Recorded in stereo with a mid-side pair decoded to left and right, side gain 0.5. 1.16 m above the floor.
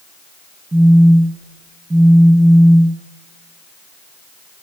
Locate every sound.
0.7 s a phone buzzing: 25° right, 3.5 m